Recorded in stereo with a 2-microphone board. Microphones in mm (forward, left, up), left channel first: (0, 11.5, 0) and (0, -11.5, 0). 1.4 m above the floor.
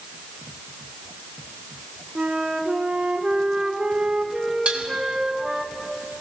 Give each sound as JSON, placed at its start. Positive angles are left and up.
{"t": 2.1, "sound": "a flute", "side_deg": -45, "distance_m": 1.7}
{"t": 4.7, "sound": "dishes clattering", "side_deg": -60, "distance_m": 3.5}